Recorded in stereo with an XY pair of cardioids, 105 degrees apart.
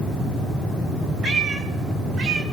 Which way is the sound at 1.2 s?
55° right.